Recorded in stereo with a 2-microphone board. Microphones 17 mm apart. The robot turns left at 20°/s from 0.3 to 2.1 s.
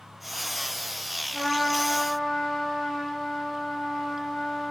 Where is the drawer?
I don't hear a drawer.